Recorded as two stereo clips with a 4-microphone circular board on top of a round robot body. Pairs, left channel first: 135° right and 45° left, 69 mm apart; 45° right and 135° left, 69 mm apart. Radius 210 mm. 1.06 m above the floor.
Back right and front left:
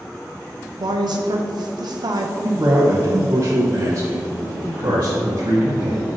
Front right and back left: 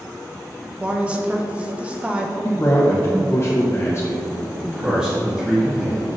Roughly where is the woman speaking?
Ahead left.